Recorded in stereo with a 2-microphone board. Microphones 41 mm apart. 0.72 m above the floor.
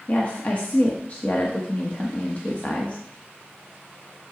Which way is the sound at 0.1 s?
35° left (ahead or behind).